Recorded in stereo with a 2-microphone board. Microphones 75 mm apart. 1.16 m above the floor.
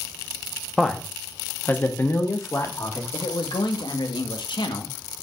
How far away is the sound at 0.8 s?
About 1.4 m.